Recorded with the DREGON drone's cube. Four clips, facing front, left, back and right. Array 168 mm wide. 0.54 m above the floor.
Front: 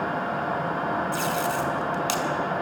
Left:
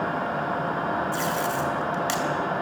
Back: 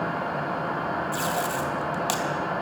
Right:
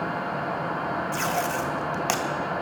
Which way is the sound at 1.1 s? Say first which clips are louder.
Even, front 1 dB; 110° right.